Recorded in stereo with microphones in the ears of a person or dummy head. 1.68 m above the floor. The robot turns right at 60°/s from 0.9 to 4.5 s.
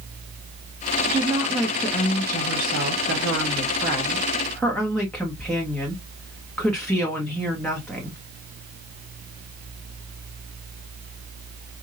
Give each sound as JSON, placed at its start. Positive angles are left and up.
{"t": 1.1, "sound": "a woman speaking", "azimuth_deg": -35, "distance_m": 1.1}